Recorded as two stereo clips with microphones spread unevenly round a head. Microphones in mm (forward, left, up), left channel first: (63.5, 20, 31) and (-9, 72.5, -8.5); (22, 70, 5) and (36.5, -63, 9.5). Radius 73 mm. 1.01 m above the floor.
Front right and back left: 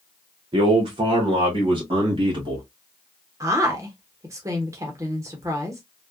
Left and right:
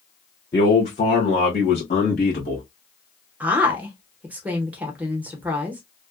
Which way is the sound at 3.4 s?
165° right.